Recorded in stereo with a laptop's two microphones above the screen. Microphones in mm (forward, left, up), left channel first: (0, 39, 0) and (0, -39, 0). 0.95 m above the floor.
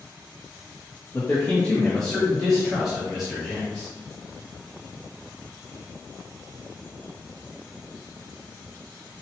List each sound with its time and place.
1.1 s a man speaking: 20° left (ahead or behind), 1.4 m; by 3.9 s 5° right (ahead or behind), 2.5 m